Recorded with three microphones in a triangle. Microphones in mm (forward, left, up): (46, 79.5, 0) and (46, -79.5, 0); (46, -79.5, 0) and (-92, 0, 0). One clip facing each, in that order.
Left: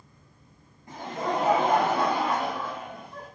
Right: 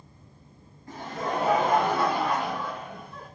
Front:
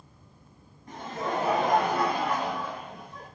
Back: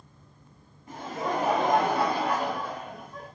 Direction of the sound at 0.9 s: 70° left.